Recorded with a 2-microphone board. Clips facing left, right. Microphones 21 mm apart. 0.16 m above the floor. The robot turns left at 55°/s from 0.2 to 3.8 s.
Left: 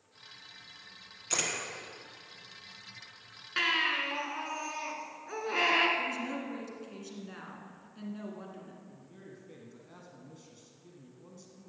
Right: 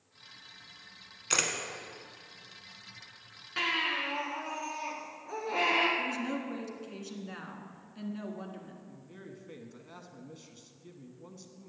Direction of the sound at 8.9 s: 30° right (ahead or behind).